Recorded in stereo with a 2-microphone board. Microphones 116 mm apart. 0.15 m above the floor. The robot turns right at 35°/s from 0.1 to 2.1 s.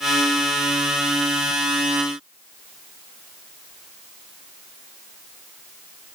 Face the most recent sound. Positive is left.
No sound to turn to.